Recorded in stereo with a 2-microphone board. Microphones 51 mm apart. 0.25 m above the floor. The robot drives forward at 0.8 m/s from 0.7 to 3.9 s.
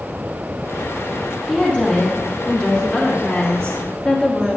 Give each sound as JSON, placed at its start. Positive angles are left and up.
{"t": 1.5, "sound": "a woman speaking", "side_deg": 15, "distance_m": 3.5}